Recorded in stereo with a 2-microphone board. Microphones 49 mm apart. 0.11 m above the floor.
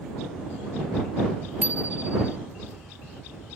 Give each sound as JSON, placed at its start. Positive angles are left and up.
{"t": 1.6, "sound": "a bicycle bell", "side_deg": -30}